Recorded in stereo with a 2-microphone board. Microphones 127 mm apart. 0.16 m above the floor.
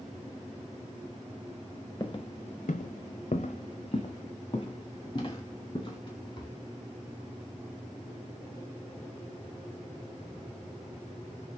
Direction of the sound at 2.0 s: 30° left (ahead or behind).